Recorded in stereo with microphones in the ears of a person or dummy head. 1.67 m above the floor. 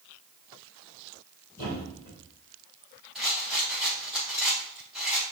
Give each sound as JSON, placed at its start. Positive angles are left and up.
{"t": 1.6, "sound": "a thud", "side_deg": 45, "distance_m": 2.5}
{"t": 3.1, "sound": "a rattle", "side_deg": -5, "distance_m": 0.6}